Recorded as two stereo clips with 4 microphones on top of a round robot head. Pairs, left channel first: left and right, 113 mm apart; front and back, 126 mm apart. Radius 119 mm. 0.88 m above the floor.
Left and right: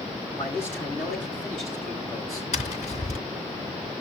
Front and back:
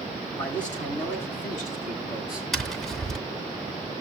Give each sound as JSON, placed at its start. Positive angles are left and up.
{"t": 0.3, "sound": "a man speaking", "azimuth_deg": 20, "distance_m": 7.5}
{"t": 2.5, "sound": "tapping", "azimuth_deg": 85, "distance_m": 0.8}